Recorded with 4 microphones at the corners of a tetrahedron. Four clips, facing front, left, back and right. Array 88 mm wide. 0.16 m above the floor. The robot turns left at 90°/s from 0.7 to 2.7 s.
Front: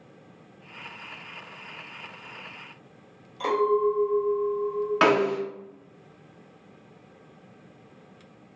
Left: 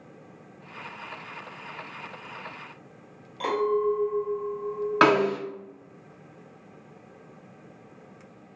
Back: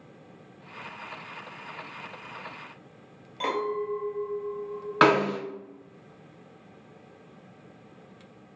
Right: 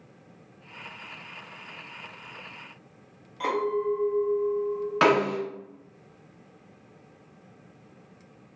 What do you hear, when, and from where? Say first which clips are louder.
3.4 s a clink: left 2 dB, front 6 dB; 160° left, 1.5 m
5.0 s a snare drum: left 2 dB, back 1 dB; 130° left, 0.6 m